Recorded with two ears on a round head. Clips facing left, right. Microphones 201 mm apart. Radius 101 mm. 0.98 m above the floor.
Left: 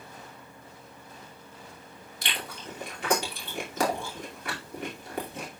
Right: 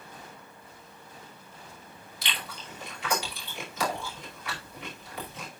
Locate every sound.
2.2 s chewing: 40° left (ahead or behind), 2.5 m